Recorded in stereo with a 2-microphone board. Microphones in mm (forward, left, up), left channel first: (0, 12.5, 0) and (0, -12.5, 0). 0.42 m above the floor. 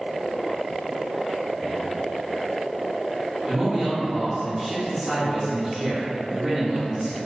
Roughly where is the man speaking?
Centre.